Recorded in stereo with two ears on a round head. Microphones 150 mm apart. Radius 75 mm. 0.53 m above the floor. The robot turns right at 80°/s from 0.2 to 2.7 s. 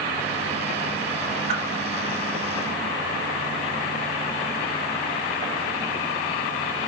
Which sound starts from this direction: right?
A whoosh, at 1.5 s.